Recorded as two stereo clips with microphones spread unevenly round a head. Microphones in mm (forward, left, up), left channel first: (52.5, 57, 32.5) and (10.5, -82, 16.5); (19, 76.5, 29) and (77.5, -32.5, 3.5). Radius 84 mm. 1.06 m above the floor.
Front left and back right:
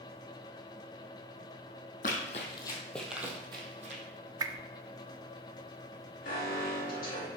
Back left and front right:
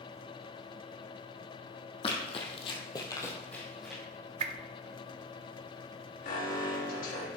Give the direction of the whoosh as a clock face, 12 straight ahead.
1 o'clock.